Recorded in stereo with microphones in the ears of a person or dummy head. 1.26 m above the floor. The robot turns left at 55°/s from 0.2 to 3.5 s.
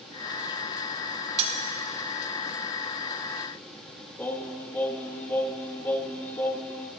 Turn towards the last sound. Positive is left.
turn(degrees=10)  # may be behind; listen again after turning